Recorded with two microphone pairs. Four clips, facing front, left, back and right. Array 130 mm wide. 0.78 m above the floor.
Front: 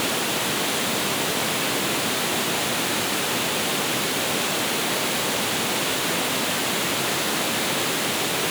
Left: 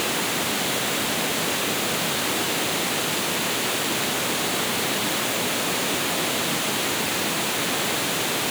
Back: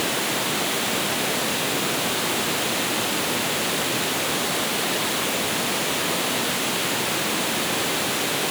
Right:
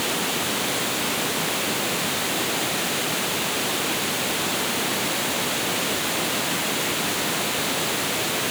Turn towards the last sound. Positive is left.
No sound to turn to.